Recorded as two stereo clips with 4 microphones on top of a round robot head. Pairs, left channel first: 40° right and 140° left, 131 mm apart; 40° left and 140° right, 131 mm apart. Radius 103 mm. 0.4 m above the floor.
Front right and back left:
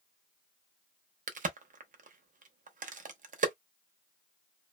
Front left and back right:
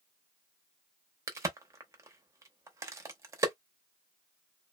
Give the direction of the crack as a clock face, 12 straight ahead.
7 o'clock.